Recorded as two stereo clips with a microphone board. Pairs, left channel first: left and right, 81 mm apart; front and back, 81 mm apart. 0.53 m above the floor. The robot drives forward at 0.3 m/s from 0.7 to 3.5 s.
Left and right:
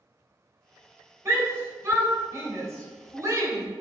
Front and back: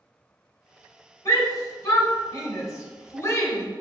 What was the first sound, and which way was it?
A shout, 40° right.